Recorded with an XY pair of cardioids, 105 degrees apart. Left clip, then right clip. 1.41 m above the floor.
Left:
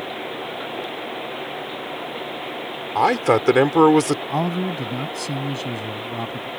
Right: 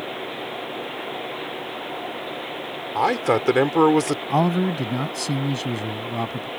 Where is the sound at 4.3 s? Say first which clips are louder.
Right 2 dB; 25° right.